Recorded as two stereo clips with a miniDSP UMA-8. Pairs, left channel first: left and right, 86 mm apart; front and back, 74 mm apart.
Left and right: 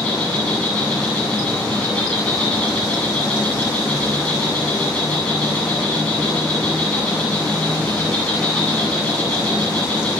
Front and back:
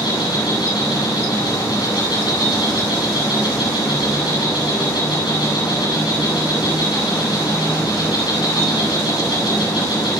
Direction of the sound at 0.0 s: 15° left.